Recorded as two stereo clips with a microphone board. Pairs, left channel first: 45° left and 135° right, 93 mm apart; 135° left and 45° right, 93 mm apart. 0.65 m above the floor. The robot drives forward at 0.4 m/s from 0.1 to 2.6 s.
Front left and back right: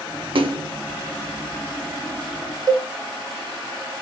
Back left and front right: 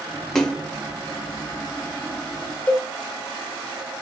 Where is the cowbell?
155° right, 0.5 m.